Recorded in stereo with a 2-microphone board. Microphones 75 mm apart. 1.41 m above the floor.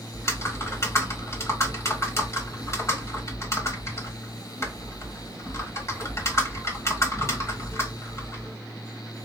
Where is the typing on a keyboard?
40° left (ahead or behind), 1.4 m.